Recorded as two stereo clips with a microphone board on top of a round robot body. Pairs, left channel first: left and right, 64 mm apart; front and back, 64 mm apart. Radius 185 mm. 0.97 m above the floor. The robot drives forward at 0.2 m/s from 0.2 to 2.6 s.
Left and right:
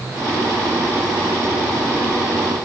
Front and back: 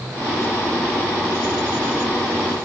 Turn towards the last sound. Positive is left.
No sound to turn to.